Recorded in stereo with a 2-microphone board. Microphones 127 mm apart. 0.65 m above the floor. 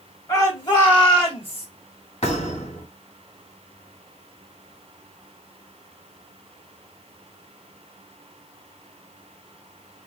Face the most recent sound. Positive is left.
turn(degrees=65)  # may be behind; listen again after turning